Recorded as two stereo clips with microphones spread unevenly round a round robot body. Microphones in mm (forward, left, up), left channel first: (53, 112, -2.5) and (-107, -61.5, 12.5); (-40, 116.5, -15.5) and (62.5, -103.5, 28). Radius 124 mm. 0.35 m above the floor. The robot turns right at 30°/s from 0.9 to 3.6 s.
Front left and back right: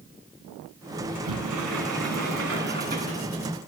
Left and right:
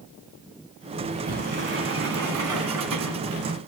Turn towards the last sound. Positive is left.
turn(degrees=-55)